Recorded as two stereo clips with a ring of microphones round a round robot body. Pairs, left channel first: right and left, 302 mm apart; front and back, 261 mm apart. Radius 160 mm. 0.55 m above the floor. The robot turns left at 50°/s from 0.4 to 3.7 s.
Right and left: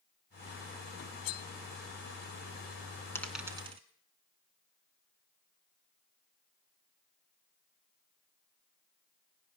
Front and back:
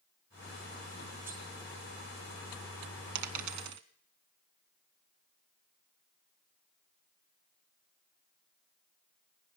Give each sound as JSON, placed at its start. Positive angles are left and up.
{"t": 1.2, "sound": "cutlery clinking", "azimuth_deg": -95, "distance_m": 2.0}
{"t": 3.1, "sound": "a dropped coin", "azimuth_deg": -170, "distance_m": 1.3}